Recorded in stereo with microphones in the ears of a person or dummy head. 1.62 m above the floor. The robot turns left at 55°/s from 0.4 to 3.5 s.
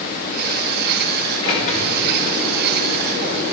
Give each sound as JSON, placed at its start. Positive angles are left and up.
{"t": 1.4, "sound": "a sliding door", "azimuth_deg": 155, "distance_m": 2.0}